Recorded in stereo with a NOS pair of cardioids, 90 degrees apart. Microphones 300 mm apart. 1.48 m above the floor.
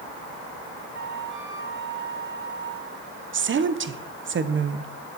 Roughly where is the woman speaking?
Ahead right.